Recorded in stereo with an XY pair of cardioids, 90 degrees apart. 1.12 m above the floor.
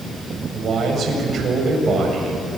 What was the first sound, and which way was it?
A man speaking, 60° right.